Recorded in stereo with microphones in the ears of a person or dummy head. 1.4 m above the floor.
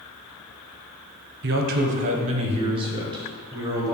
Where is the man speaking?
55° right (ahead or behind), 0.9 m; by 3.9 s 20° right (ahead or behind), 1.9 m.